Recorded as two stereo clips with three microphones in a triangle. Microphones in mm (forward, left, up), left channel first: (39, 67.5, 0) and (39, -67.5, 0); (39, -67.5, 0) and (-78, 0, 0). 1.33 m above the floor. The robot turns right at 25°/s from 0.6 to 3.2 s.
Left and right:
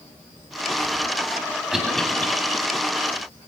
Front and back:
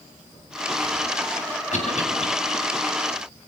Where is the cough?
5° right, 8 m; by 2.3 s 10° left, 8 m.